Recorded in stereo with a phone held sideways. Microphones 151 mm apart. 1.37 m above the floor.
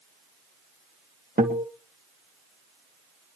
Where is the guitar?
70° right (ahead or behind), 2 m.